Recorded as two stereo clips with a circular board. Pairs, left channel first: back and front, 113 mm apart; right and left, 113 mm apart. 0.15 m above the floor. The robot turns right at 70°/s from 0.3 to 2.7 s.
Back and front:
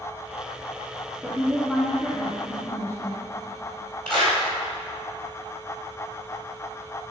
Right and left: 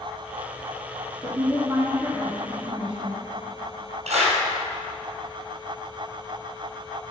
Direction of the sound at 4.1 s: 100° left.